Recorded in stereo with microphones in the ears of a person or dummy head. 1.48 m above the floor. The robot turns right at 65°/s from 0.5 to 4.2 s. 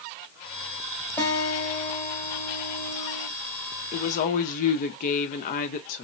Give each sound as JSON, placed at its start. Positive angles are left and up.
{"t": 1.2, "sound": "a guitar", "azimuth_deg": 15, "distance_m": 1.7}
{"t": 3.9, "sound": "a woman speaking", "side_deg": 35, "distance_m": 0.9}